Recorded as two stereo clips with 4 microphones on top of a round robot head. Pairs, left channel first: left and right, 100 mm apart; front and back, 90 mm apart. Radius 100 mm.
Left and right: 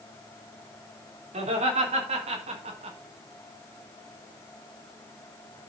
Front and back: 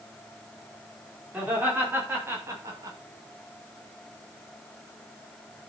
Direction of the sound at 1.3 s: 100° right.